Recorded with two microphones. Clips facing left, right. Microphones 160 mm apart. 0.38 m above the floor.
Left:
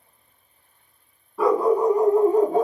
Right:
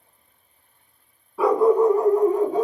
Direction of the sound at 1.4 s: Centre (ahead or behind).